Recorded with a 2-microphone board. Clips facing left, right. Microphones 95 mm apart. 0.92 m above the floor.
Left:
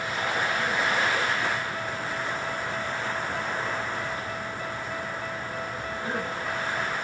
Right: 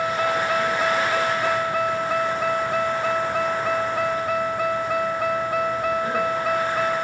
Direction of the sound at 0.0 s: 85° right.